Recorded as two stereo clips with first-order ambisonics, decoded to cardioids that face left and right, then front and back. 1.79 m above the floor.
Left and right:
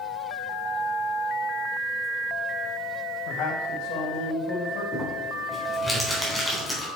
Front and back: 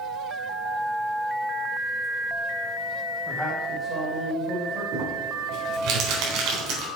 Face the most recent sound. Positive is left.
turn(degrees=180)